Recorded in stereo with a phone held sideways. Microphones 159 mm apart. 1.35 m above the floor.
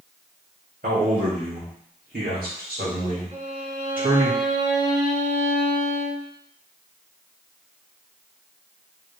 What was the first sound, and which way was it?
A man speaking, 75° right (ahead or behind).